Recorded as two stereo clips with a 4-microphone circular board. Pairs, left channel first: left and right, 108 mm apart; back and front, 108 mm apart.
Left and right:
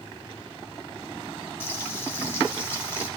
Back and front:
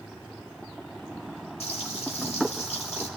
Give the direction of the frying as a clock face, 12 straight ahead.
7 o'clock.